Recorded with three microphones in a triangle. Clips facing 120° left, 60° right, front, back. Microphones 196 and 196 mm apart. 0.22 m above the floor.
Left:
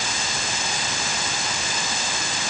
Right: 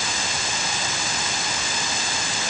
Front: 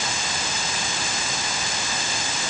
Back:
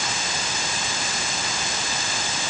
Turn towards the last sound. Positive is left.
No sound to turn to.